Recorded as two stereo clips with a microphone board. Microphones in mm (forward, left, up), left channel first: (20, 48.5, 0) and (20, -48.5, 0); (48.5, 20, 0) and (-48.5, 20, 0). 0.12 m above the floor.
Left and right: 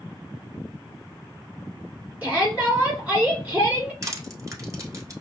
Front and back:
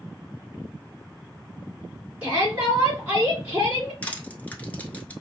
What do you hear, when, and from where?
2.2 s a shout: 125° right, 1.8 m
4.0 s crushing: 65° right, 0.9 m